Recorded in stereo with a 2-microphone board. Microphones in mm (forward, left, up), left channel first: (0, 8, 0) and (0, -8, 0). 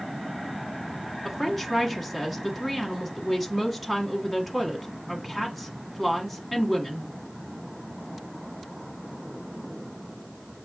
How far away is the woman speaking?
About 1.3 m.